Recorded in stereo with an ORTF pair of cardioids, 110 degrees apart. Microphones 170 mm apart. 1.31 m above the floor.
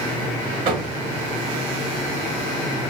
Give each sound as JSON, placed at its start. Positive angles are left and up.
{"t": 0.7, "sound": "knocking", "azimuth_deg": -70, "distance_m": 1.2}